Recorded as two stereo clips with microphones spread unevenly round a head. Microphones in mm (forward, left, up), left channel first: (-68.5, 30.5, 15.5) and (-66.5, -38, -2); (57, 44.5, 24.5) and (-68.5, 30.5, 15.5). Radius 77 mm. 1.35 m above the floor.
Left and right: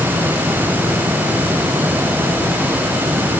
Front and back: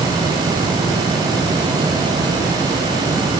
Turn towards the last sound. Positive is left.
No sound to turn to.